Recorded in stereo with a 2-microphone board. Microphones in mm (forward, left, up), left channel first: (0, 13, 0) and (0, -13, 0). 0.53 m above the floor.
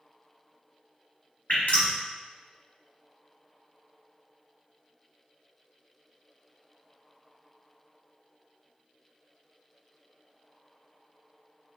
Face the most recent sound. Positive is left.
turn(degrees=60)  # may be behind; listen again after turning